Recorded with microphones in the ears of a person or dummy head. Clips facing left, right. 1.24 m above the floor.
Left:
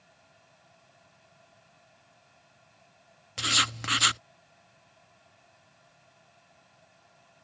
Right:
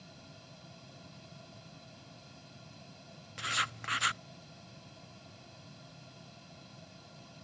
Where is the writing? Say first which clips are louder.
Left 8 dB; 45° left (ahead or behind).